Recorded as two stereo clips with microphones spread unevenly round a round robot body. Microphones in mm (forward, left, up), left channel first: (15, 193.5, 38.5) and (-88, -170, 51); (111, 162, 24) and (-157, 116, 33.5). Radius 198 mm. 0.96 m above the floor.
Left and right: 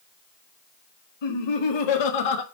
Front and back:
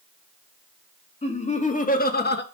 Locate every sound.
1.2 s laughter: 75° left, 2.5 m; by 2.4 s 60° left, 1.3 m